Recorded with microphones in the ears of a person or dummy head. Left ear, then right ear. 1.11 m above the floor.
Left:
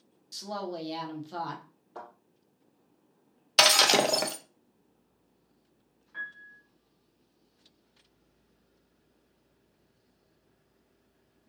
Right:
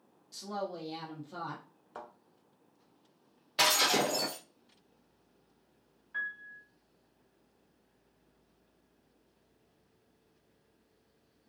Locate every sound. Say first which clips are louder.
0.3 s a woman speaking: left 2 dB; 20° left (ahead or behind), 0.9 m
1.9 s a thud: left 2 dB; 40° right (ahead or behind), 1.3 m
3.6 s breaking glass: left 6 dB; 50° left (ahead or behind), 0.5 m
6.1 s a piano: right 2 dB; 30° right (ahead or behind), 0.9 m